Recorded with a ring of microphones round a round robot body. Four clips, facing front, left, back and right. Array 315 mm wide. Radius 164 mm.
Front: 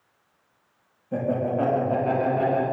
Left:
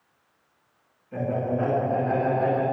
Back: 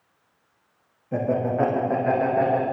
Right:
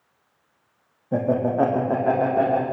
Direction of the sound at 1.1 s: 95° right.